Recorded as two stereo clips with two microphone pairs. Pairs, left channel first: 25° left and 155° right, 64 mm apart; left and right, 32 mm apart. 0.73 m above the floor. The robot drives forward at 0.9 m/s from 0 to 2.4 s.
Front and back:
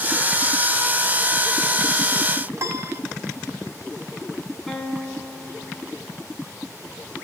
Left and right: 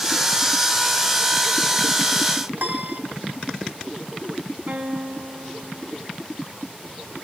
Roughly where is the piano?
Right.